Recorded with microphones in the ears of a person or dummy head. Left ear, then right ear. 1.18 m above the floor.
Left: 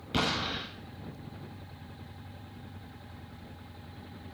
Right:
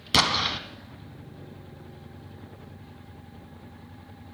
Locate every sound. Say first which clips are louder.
0.1 s an explosion: right 8 dB; 65° right (ahead or behind), 3 m